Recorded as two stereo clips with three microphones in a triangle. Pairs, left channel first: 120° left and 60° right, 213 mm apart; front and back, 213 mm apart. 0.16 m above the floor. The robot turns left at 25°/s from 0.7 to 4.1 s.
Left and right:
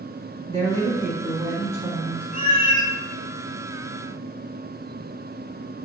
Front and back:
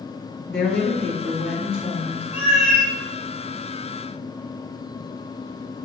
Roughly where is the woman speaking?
Right.